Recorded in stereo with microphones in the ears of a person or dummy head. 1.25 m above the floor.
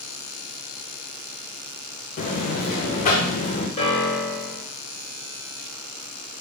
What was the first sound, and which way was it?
A buzzer, 40° left (ahead or behind).